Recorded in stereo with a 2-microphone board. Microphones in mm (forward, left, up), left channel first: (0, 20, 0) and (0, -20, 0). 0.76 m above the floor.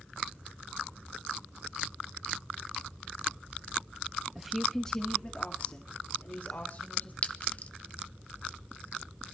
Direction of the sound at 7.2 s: 40° left (ahead or behind).